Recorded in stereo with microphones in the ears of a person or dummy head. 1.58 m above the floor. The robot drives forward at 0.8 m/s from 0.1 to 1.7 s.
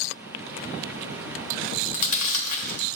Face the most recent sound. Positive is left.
turn(degrees=45)  # may be behind; listen again after turning